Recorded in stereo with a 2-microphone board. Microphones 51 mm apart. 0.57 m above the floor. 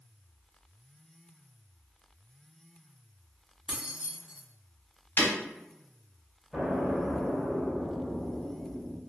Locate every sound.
3.7 s keys jangling: 15° right (ahead or behind), 0.6 m
5.2 s breaking glass: 45° left (ahead or behind), 0.9 m
6.5 s an explosion: 5° right (ahead or behind), 0.6 m